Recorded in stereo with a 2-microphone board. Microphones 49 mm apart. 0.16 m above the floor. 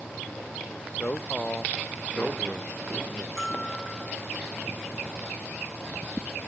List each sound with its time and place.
0.7 s a man speaking: 30° left (ahead or behind)
3.4 s a bell: 10° left (ahead or behind)